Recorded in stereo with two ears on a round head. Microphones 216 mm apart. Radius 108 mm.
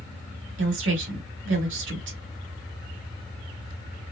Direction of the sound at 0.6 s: 50° right (ahead or behind).